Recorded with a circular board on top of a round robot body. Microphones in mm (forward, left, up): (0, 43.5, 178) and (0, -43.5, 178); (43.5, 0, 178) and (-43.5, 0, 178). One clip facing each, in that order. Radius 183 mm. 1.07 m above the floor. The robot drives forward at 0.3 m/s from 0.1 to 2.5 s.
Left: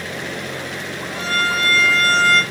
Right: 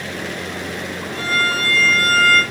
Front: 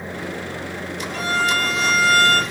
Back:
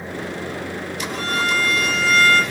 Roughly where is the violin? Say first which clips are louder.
Even, front 1 dB; ahead.